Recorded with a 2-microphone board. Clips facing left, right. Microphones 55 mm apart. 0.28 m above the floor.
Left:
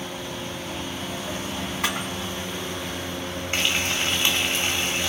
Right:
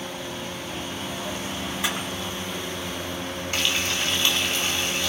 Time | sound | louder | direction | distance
1.8 | a camera shutter | left 2 dB | 45° left (ahead or behind) | 3 m
3.5 | frying | left 1 dB | 25° left (ahead or behind) | 1.2 m